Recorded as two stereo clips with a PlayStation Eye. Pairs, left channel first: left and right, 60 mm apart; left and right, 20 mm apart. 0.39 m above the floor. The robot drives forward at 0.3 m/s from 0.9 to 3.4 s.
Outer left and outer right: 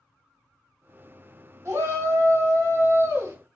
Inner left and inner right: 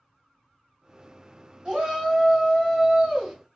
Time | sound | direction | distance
1.6 | a shout | 55° right (ahead or behind) | 2.5 m